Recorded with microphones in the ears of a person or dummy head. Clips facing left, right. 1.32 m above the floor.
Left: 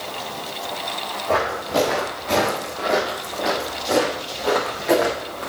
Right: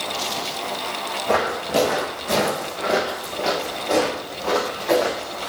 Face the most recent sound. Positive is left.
turn(degrees=30)  # may be behind; listen again after turning